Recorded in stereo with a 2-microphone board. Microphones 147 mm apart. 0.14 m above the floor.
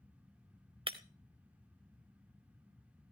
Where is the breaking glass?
35° right (ahead or behind), 0.9 m.